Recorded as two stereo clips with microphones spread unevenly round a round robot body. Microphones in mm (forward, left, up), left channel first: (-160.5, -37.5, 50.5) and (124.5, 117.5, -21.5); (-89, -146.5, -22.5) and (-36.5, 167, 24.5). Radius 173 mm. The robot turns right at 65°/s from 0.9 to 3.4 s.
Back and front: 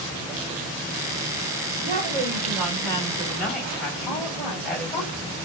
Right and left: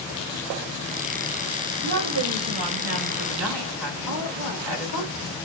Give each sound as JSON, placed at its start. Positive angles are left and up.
{"t": 1.8, "sound": "a woman speaking", "azimuth_deg": 15, "distance_m": 3.5}
{"t": 4.1, "sound": "a woman speaking", "azimuth_deg": 130, "distance_m": 4.5}